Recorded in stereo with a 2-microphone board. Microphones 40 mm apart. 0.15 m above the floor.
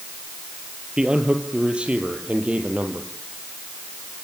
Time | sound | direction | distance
1.0 | a man speaking | 25° right (ahead or behind) | 3 m